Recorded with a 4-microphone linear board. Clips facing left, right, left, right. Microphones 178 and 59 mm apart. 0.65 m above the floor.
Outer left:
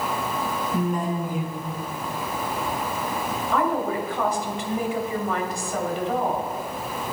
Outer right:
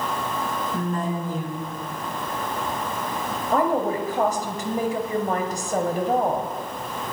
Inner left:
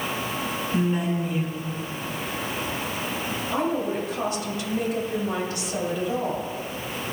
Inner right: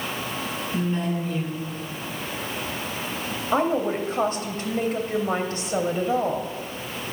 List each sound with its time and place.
0.7 s a woman speaking: 10° left (ahead or behind), 7 m
3.5 s a woman speaking: 45° right (ahead or behind), 2.5 m